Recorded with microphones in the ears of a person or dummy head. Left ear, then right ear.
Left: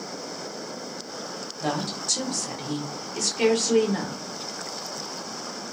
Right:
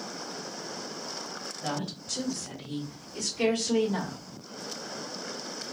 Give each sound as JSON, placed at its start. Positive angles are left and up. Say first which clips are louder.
{"t": 1.6, "sound": "a woman speaking", "louder": "left 8 dB", "side_deg": 75, "distance_m": 1.5}